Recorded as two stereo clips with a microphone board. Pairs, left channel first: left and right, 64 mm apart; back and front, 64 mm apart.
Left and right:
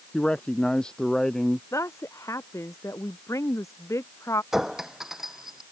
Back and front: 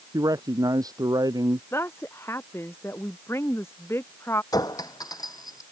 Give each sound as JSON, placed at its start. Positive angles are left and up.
{"t": 0.1, "sound": "a man speaking", "azimuth_deg": 15}
{"t": 1.7, "sound": "a woman speaking", "azimuth_deg": 130}
{"t": 4.5, "sound": "a clink", "azimuth_deg": -175}